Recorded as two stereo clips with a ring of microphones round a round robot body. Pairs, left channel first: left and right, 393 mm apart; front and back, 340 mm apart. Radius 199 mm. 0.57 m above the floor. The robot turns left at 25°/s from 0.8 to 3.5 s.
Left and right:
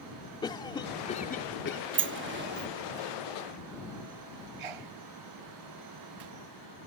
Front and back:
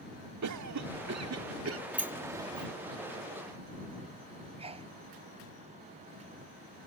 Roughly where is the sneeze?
Right.